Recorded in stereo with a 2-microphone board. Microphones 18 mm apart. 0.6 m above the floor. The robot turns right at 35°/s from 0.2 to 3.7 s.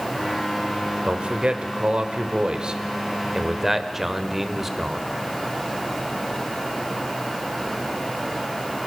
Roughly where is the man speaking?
Right.